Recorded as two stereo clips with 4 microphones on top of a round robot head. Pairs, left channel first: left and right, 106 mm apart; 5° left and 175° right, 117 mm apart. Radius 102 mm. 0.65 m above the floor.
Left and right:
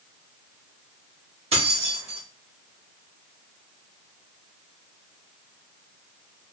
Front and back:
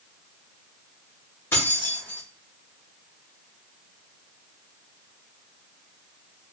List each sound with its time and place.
1.5 s keys jangling: 65° right, 1.9 m